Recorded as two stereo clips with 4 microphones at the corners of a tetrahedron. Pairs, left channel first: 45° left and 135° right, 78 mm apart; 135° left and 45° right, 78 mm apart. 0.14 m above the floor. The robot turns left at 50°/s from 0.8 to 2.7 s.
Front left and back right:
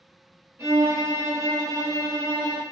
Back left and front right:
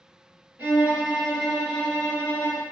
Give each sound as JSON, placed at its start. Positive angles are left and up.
{"t": 0.6, "sound": "a violin", "azimuth_deg": -100, "distance_m": 1.3}